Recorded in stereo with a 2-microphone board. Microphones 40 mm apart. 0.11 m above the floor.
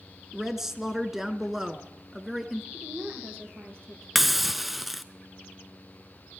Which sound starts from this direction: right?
A woman speaking, at 2.7 s.